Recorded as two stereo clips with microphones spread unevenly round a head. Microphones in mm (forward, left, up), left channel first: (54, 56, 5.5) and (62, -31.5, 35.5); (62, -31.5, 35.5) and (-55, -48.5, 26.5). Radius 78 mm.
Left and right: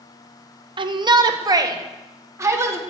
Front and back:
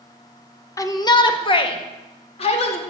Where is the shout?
55° right, 1.4 m; by 2.8 s 25° right, 2.5 m.